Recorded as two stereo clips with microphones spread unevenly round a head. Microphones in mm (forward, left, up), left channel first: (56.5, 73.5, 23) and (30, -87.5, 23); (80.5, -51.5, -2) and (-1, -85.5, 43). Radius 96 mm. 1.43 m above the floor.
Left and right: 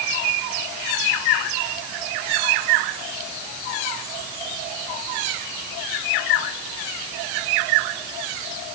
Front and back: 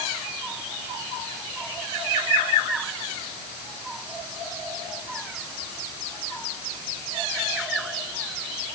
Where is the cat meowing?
I don't hear a cat meowing.